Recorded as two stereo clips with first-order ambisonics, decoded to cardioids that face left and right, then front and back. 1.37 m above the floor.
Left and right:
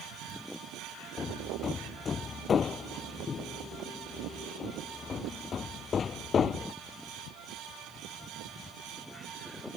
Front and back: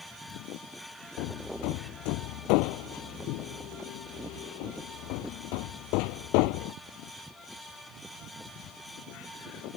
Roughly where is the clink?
I don't hear a clink.